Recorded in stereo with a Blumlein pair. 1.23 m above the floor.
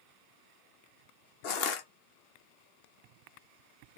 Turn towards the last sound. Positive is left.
turn(degrees=45)